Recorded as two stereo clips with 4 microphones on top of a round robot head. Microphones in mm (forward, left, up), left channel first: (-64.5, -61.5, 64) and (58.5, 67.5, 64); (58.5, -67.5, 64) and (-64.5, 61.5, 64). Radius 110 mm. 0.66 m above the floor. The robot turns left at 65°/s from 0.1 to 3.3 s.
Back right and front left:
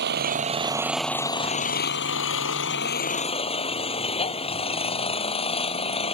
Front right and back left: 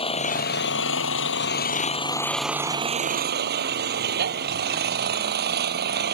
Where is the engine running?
15° left; by 6.2 s 165° left.